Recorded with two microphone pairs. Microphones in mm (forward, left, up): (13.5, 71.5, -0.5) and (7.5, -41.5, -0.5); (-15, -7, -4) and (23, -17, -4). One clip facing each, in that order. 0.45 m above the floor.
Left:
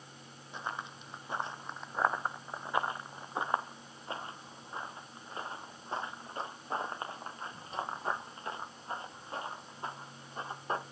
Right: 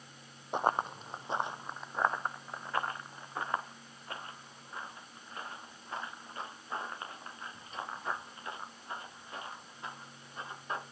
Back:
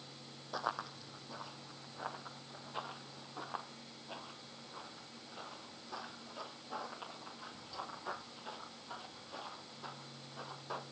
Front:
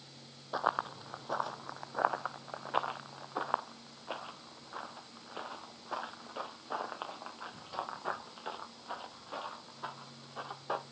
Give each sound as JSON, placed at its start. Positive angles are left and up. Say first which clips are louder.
{"t": 0.5, "sound": "running footsteps", "louder": "right 10 dB, front 7 dB", "azimuth_deg": -85, "distance_m": 0.9}